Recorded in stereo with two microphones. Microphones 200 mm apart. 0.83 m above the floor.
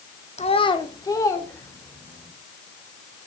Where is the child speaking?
35° left (ahead or behind), 0.8 m; by 2.3 s 10° left (ahead or behind), 2.5 m.